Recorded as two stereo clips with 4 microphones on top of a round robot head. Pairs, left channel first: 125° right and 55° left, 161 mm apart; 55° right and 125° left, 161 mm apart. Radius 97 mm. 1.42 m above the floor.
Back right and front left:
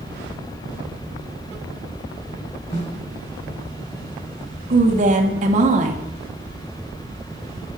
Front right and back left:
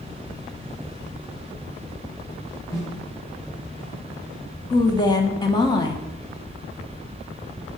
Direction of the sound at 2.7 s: 125° right.